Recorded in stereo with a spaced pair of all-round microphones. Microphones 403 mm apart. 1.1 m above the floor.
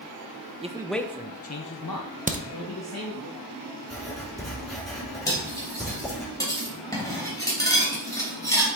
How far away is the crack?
About 0.8 m.